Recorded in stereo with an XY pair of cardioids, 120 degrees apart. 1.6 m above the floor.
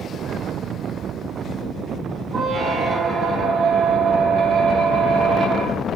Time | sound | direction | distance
2.3 | a squeak | 45° right | 1.8 m